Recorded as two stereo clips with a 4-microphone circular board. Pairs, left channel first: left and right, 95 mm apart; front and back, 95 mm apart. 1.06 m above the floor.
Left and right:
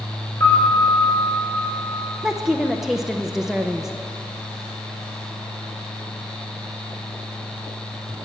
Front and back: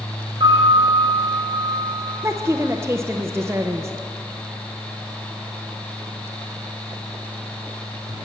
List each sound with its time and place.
0.4 s a piano: 145° left, 5 m
2.2 s a woman speaking: 170° right, 0.5 m